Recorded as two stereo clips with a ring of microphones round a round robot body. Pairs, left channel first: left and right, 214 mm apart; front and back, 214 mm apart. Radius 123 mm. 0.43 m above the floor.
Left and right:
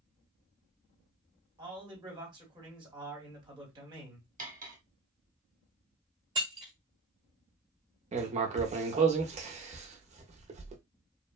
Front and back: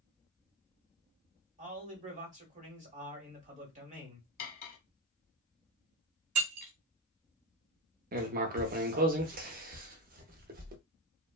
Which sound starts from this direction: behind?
Breaking glass, at 6.3 s.